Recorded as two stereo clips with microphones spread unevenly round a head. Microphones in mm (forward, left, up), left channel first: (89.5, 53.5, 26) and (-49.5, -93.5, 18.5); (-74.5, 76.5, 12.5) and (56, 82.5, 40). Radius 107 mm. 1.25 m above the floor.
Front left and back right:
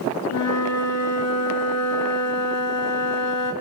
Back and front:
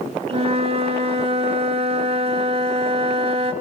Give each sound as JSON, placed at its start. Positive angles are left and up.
{"t": 0.3, "sound": "a flute", "azimuth_deg": 45, "distance_m": 2.5}